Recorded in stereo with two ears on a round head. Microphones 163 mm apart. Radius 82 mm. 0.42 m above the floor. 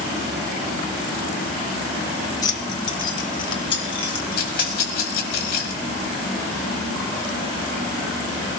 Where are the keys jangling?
20° left (ahead or behind), 0.8 m; by 4.8 s 30° left (ahead or behind), 3.5 m.